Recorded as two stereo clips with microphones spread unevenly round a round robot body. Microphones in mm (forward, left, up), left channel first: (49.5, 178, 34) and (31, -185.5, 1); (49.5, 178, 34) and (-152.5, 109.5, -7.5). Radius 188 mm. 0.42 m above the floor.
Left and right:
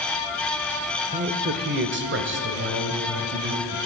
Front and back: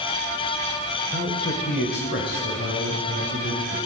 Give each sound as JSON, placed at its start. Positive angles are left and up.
{"t": 1.1, "sound": "a man speaking", "azimuth_deg": -45, "distance_m": 1.0}